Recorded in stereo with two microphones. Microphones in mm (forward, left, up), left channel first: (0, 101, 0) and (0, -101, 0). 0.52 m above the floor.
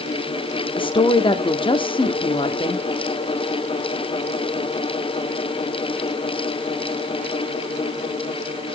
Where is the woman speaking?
25° left (ahead or behind), 0.7 m.